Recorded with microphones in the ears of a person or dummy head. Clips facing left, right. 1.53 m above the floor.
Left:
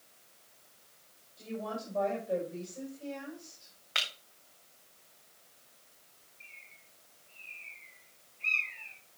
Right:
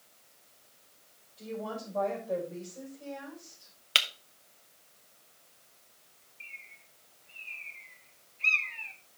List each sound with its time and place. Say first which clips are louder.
1.4 s a woman speaking: right 1 dB; 5° right (ahead or behind), 6 m
4.0 s breaking glass: right 4 dB; 50° right (ahead or behind), 1.1 m
6.4 s a bird: right 5 dB; 65° right (ahead or behind), 1.1 m